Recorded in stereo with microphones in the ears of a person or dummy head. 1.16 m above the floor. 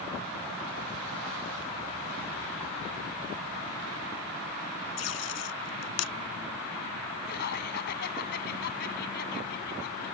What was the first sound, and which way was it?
Tape being pulled, 75° left (ahead or behind).